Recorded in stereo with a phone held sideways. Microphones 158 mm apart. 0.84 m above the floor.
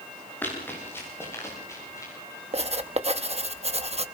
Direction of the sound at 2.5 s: 40° right (ahead or behind).